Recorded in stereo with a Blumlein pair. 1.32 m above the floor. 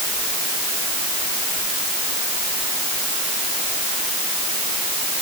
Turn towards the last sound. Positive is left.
No sound to turn to.